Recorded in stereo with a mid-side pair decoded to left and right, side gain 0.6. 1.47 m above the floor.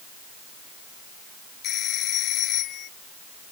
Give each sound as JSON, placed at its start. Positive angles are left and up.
{"t": 1.6, "sound": "a phone ringing", "azimuth_deg": 55}